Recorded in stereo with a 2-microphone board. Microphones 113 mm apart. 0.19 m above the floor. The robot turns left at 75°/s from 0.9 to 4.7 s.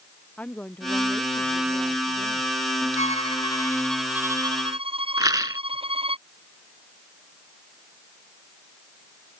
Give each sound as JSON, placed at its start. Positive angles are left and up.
{"t": 0.4, "sound": "a woman speaking", "azimuth_deg": 10}
{"t": 3.0, "sound": "a violin", "azimuth_deg": 75}
{"t": 5.2, "sound": "a rattle", "side_deg": -35}